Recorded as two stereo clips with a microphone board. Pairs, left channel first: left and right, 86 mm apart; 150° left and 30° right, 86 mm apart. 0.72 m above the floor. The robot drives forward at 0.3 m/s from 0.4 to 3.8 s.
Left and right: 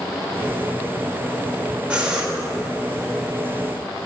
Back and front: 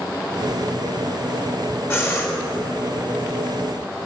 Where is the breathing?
160° right, 1.2 m; by 2.3 s 165° right, 1.3 m.